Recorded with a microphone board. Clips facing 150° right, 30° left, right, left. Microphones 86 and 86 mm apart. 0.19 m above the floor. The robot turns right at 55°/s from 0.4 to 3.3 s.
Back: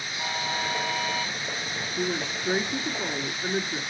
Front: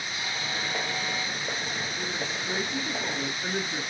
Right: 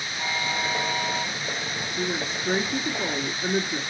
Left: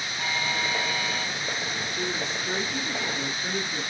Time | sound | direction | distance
0.2 | a buzzer | 160° right | 3.5 m
2.0 | a woman speaking | 145° right | 2.0 m